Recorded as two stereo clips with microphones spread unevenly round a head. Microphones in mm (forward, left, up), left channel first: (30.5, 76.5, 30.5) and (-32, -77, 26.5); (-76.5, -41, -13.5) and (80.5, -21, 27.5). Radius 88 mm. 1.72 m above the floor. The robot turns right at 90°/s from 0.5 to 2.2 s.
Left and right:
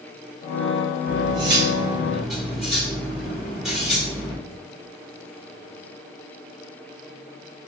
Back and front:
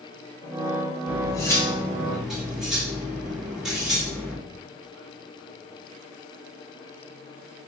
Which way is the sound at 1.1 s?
125° right.